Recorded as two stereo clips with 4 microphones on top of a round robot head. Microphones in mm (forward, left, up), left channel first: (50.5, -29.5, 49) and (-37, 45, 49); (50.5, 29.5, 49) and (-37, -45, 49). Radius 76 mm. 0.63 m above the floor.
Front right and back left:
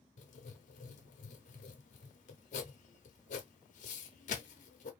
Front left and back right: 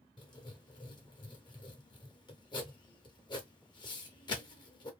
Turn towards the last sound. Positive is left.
turn(degrees=-15)